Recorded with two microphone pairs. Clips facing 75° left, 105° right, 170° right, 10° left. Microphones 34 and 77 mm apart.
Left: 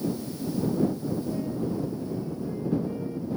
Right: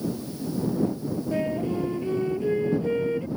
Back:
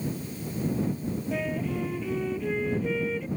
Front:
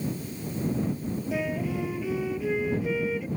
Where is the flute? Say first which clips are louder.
Right 4 dB, front 1 dB; 75° right.